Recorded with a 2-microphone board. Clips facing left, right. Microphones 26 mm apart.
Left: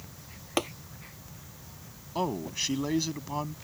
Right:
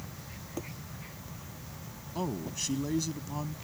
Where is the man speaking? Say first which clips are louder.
Left 4 dB; 30° left (ahead or behind).